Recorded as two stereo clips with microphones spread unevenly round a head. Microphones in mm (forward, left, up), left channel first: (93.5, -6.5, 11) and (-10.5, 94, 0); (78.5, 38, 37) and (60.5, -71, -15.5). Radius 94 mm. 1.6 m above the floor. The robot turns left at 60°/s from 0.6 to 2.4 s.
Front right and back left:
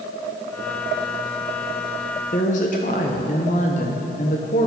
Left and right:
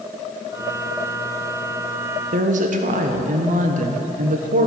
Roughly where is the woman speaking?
Right.